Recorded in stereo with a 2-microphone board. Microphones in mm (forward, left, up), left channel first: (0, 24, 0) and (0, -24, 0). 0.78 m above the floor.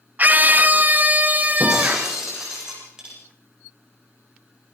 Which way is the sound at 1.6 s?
10° right (ahead or behind).